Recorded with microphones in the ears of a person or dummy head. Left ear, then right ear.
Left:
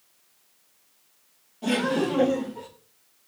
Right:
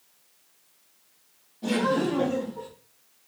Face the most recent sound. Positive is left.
turn(degrees=55)  # may be behind; listen again after turning